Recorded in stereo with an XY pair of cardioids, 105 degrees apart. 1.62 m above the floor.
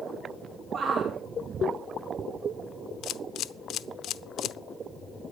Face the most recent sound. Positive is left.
turn(degrees=70)